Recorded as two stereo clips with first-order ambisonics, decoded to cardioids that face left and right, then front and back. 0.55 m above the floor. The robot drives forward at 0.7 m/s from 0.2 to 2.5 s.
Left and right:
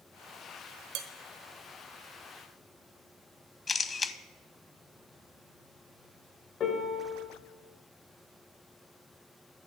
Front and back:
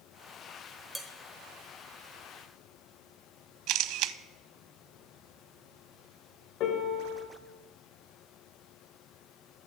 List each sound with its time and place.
0.9 s dishes clattering: 90° right, 1.2 m; by 1.1 s 95° right, 1.2 m
3.7 s a camera shutter: 160° left, 0.6 m
6.6 s a piano: 35° left, 1.9 m